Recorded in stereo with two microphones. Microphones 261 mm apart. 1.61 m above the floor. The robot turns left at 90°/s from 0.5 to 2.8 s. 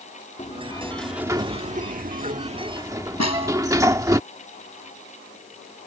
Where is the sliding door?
50° left; by 4.2 s 155° right.